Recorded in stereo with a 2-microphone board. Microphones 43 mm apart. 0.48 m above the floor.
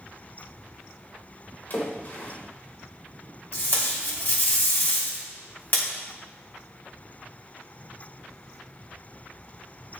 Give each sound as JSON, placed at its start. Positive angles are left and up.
{"t": 1.7, "sound": "a splash", "side_deg": 45, "distance_m": 2.0}
{"t": 3.5, "sound": "tape being pulled", "side_deg": 50, "distance_m": 2.0}